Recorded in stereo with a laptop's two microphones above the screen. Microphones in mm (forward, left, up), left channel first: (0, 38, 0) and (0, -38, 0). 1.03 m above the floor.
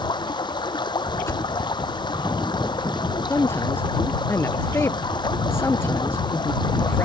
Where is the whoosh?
35° left (ahead or behind).